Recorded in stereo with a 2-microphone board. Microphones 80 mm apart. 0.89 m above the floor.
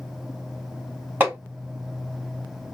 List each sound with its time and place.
1.2 s hammering: 25° right (ahead or behind), 3 m